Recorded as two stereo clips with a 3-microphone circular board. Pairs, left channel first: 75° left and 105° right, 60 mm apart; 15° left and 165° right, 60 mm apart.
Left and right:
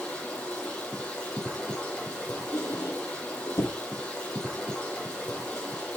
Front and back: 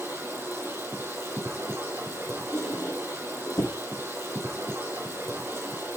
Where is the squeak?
40° left, 4.5 m.